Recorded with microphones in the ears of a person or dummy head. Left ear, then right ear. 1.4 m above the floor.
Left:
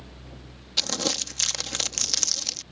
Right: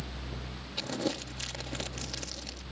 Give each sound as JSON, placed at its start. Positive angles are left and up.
{"t": 0.8, "sound": "crumpling", "side_deg": 50}